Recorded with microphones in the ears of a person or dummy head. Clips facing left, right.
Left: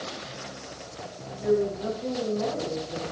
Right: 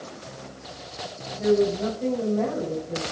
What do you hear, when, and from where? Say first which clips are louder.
1.4 s a woman speaking: right 4 dB; 75° right (ahead or behind), 5 m